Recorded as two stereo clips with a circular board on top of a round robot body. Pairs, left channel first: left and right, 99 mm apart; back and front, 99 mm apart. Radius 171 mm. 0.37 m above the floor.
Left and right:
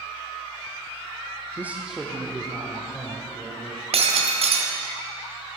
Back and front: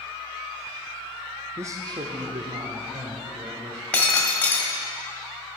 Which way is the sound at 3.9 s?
100° right.